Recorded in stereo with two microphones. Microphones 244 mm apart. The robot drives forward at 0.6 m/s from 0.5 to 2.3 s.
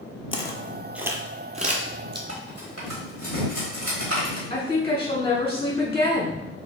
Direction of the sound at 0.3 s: 25° left (ahead or behind).